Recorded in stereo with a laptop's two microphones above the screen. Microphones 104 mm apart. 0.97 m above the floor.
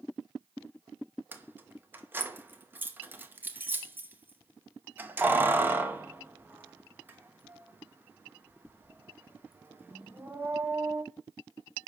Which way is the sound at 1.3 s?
20° right (ahead or behind).